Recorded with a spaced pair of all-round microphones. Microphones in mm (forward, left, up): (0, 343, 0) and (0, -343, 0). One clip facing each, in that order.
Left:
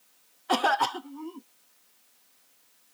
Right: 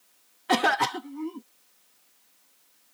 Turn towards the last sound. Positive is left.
turn(degrees=-55)  # may be behind; listen again after turning